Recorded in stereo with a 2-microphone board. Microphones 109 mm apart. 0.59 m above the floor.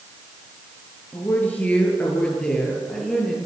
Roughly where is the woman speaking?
Centre.